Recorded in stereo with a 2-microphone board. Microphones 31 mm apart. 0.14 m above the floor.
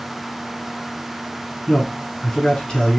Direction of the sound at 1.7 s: 25° left (ahead or behind).